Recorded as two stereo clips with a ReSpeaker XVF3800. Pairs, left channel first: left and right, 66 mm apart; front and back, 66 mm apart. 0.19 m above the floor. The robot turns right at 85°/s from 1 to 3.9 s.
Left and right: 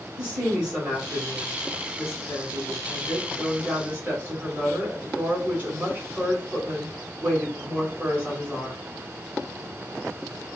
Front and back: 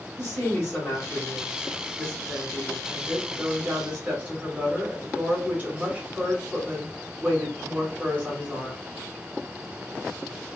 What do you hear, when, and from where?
0.2 s a woman speaking: 20° right, 1.9 m; by 8.8 s 135° right, 1.9 m